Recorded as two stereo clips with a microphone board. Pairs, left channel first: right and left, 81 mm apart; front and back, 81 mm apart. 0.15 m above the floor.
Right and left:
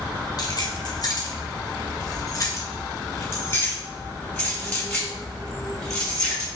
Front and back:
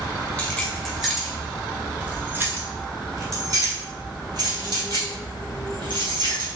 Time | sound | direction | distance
0.4 | keys jangling | 75° right | 1.5 m